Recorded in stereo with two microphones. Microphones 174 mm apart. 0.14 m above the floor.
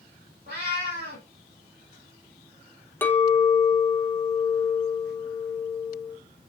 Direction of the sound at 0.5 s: 75° right (ahead or behind).